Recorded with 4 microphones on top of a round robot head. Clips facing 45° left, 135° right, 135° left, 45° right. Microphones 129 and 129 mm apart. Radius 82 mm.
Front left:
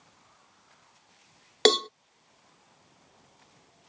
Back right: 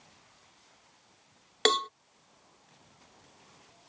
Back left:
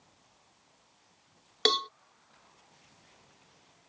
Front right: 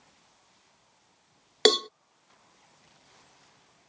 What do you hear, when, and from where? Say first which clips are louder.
1.6 s a cowbell: front left 5 dB, front right 7 dB; 5° right